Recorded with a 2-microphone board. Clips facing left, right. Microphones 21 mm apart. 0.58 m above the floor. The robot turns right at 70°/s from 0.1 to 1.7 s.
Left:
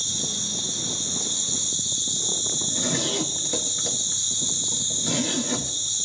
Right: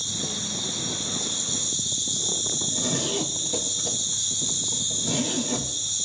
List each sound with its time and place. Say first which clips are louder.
0.0 s an insect: left 2 dB; 50° left, 3 m; by 6.1 s 160° left, 3 m
2.5 s a zipper: left 1 dB; 70° left (ahead or behind), 4.5 m